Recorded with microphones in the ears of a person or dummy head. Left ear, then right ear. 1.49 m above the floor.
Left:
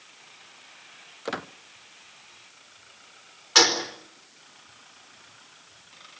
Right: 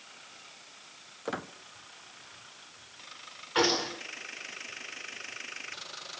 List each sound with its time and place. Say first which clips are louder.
1.2 s a squeak: left 4 dB; 25° left (ahead or behind), 0.6 m
3.5 s a gunshot: left 7 dB; 85° left, 4.5 m